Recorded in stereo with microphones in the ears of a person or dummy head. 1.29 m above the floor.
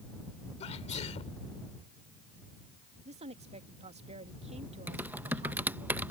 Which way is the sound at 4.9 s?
10° right (ahead or behind).